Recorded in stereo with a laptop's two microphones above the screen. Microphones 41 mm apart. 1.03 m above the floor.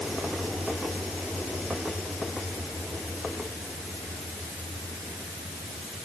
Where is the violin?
I don't hear a violin.